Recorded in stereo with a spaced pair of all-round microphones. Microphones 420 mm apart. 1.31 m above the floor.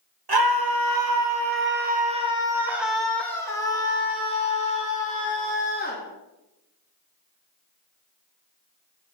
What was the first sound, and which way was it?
A scream, 65° right (ahead or behind).